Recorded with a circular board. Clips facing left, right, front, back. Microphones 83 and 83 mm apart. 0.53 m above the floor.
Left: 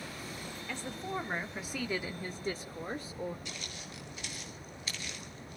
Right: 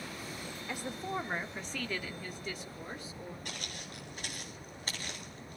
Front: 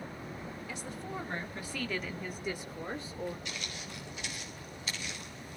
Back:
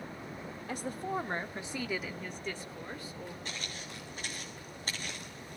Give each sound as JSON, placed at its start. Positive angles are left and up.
{"t": 0.7, "sound": "a woman speaking", "azimuth_deg": -160, "distance_m": 1.5}
{"t": 3.5, "sound": "footsteps", "azimuth_deg": -130, "distance_m": 5.5}